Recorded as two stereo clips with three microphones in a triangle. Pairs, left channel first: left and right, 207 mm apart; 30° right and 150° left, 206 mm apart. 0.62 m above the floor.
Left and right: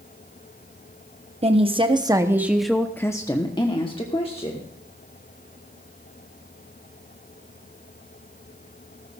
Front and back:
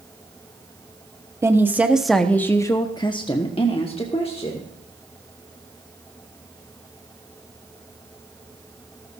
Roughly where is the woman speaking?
Behind right.